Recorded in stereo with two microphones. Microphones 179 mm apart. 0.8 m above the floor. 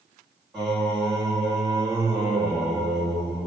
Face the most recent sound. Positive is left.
turn(degrees=5)  # may be behind; listen again after turning